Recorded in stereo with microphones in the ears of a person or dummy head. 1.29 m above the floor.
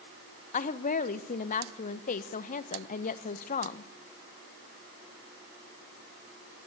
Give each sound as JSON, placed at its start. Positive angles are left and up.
{"t": 0.5, "sound": "a woman speaking", "side_deg": 35, "distance_m": 1.0}